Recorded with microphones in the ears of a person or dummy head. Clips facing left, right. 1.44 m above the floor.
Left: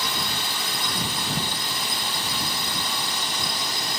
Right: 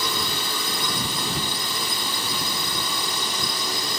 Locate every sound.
0.0 s a drone: 75° right (ahead or behind)